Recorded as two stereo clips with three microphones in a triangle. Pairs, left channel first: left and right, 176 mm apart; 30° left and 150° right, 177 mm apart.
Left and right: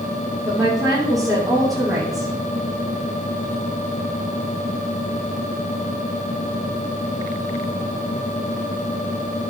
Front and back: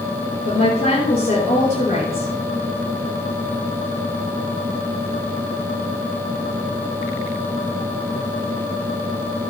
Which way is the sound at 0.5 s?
Straight ahead.